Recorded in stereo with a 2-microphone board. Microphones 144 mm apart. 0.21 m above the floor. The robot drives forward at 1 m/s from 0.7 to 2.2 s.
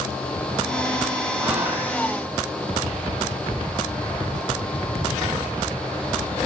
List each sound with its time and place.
1.4 s whispering: 10° right (ahead or behind), 9 m; by 1.9 s 15° right (ahead or behind), 8.5 m